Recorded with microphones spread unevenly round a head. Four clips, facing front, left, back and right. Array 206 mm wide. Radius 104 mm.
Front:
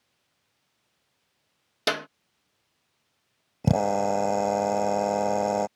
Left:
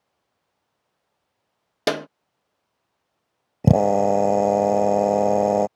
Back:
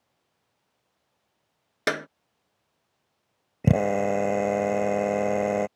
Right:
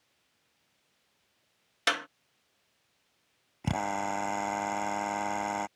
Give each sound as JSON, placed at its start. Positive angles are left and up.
{"t": 1.9, "sound": "a clap", "azimuth_deg": 100}
{"t": 3.6, "sound": "a drill", "azimuth_deg": 100}